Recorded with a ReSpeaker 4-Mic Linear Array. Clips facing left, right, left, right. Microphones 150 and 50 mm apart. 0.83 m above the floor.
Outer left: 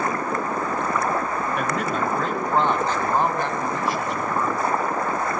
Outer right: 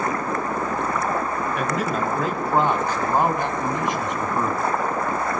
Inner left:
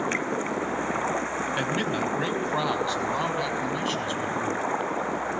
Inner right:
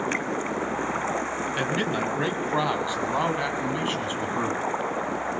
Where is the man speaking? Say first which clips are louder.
Outer right 1 dB, inner right 2 dB; centre (ahead or behind), 4.5 m; by 4.6 s 25° right (ahead or behind), 6 m.